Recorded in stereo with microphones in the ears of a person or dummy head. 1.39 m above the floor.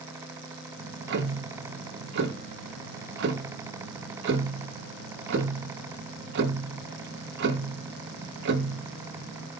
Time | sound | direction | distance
0.8 | ticking | 60° right (ahead or behind) | 1.5 m